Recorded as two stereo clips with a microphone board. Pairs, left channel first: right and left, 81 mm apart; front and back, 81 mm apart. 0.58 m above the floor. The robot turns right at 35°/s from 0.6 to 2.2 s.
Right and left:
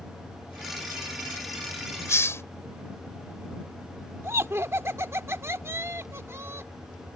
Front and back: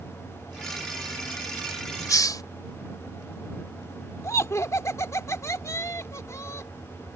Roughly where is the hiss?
Ahead right.